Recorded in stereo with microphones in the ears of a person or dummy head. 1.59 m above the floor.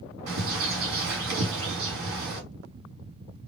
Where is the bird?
75° right (ahead or behind), 2.5 m.